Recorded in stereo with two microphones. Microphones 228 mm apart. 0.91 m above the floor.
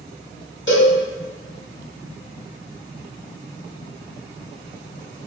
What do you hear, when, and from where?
0.7 s a cowbell: 55° left (ahead or behind), 1.2 m